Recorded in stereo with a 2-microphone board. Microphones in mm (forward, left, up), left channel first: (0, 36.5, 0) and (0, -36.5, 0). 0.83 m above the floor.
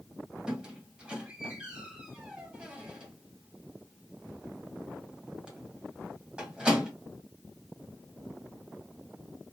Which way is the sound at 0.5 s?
10° right (ahead or behind).